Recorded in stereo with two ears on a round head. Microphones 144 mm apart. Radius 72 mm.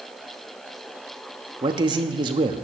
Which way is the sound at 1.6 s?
30° right (ahead or behind).